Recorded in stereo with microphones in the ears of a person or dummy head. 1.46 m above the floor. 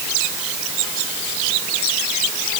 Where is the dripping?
No dripping in this recording.